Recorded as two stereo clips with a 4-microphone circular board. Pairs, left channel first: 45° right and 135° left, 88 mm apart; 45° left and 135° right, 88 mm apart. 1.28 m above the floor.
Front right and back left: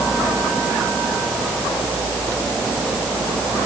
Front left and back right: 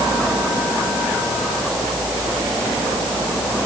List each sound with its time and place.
Only background noise.